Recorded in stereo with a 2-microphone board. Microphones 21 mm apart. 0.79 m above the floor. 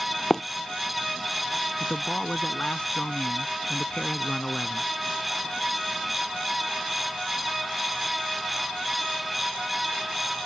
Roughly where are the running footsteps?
Left.